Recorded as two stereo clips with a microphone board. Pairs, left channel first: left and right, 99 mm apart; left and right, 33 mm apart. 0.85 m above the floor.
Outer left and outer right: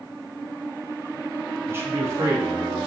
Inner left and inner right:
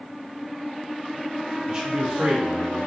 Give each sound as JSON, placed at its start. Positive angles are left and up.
{"t": 1.7, "sound": "a man speaking", "side_deg": -25, "distance_m": 0.8}